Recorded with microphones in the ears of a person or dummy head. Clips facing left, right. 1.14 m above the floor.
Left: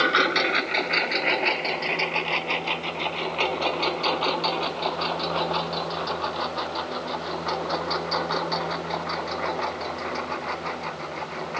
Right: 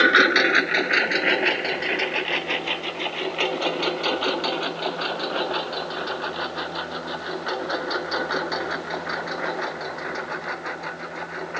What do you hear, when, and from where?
0.0 s a lawn mower: 20° right (ahead or behind); by 11.6 s 10° right (ahead or behind)